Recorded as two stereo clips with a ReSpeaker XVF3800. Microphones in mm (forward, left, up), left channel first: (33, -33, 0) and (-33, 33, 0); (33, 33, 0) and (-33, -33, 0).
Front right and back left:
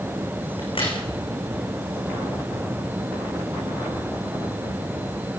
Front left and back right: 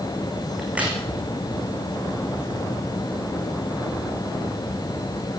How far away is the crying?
I don't hear crying.